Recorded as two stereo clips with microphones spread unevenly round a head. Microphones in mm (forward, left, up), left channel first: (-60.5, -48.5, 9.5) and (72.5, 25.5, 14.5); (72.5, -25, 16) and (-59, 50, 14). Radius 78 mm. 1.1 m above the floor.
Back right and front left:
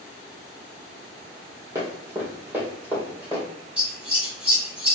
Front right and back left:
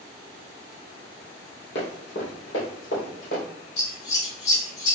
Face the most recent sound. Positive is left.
turn(degrees=-50)